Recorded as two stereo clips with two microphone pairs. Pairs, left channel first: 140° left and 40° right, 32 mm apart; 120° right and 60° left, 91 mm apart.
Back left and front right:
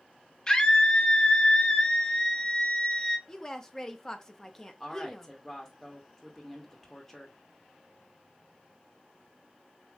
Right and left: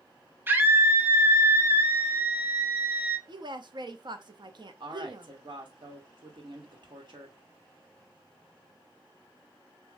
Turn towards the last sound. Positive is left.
turn(degrees=60)